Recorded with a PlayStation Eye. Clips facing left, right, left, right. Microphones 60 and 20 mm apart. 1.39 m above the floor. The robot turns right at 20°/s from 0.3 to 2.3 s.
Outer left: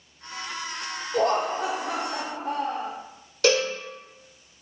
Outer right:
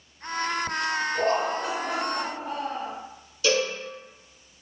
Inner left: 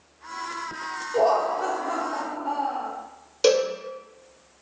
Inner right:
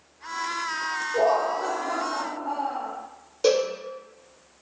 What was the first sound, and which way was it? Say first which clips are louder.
Laughter: outer left 5 dB, inner left 2 dB; 80° left.